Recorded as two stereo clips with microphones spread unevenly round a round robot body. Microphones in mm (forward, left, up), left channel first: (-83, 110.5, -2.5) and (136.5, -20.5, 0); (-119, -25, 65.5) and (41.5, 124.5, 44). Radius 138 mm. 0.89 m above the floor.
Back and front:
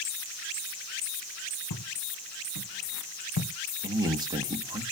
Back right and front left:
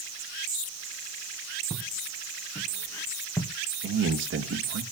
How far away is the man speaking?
About 1.7 m.